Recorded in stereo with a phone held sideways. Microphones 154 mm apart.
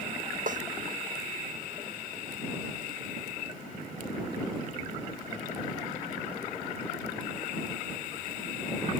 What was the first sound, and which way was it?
A snare drum, 55° right (ahead or behind).